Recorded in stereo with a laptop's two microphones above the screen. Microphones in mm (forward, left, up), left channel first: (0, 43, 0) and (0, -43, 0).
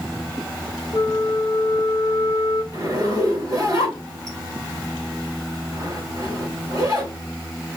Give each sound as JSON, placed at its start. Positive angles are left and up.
{"t": 0.9, "sound": "a flute", "side_deg": 35, "distance_m": 1.0}
{"t": 2.7, "sound": "a zipper", "side_deg": -45, "distance_m": 2.0}